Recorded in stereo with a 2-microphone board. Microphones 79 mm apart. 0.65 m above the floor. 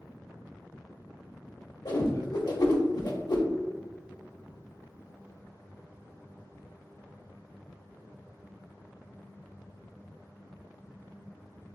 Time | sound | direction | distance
1.9 | a whoosh | 55° left (ahead or behind) | 0.8 m